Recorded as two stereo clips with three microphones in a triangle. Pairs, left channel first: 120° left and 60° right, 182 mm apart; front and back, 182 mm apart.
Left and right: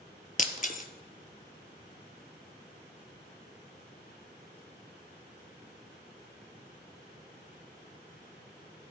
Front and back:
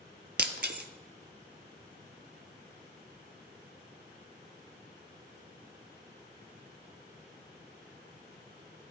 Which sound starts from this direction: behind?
Breaking glass, at 0.4 s.